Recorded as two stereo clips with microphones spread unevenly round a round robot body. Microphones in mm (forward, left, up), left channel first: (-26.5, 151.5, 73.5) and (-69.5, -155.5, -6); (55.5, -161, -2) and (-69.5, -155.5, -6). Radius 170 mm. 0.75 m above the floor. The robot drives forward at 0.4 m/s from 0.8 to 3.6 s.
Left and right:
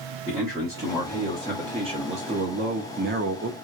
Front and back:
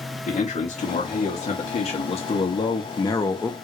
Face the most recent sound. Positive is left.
turn(degrees=-80)